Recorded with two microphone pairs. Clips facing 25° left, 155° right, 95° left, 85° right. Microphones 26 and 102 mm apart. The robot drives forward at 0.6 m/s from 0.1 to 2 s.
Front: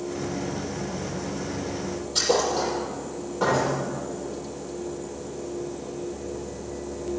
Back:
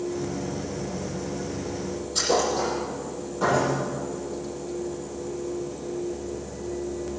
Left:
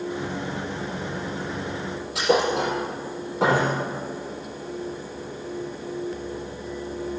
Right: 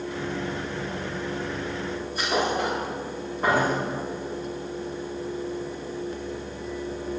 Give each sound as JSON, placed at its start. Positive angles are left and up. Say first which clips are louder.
{"t": 2.1, "sound": "a thud", "louder": "front 1 dB, left 5 dB", "azimuth_deg": 95, "distance_m": 6.0}